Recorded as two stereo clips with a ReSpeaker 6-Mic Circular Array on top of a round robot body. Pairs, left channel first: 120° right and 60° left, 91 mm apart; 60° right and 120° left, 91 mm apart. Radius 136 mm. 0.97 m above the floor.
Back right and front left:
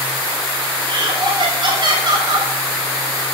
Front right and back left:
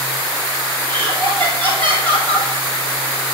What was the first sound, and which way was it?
Laughter, 90° left.